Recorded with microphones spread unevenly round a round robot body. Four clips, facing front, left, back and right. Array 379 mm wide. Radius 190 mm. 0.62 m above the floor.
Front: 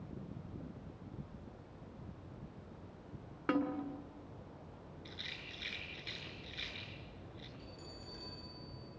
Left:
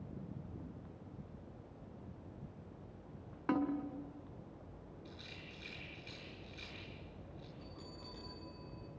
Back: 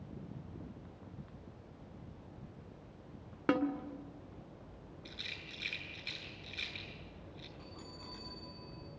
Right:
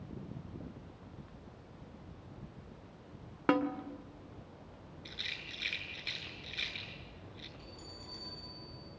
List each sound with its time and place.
3.5 s a snare drum: 115° right, 2.5 m
5.0 s a rattle: 105° right, 10 m
7.6 s a bell: 170° right, 8.5 m